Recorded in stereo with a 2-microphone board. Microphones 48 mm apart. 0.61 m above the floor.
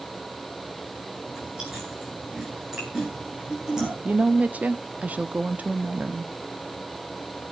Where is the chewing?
15° right (ahead or behind), 9 m.